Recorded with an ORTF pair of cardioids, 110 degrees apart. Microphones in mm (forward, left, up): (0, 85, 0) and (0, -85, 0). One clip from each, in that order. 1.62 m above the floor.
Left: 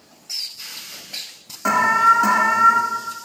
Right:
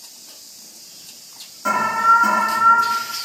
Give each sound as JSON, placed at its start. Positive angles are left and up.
{"t": 1.6, "sound": "an alarm", "azimuth_deg": 35, "distance_m": 2.0}